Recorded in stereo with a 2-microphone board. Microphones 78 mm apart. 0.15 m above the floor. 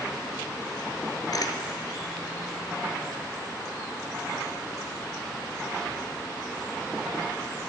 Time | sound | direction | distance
1.3 | a camera shutter | 60° left (ahead or behind) | 0.7 m